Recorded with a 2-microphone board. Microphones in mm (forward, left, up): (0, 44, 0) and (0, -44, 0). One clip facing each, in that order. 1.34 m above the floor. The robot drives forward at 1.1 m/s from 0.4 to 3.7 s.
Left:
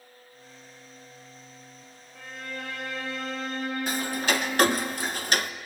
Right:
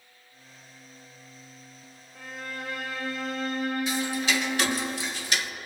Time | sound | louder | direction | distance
2.1 | a violin | even | 5° right (ahead or behind) | 3.5 m
3.9 | ticking | even | 50° left (ahead or behind) | 0.7 m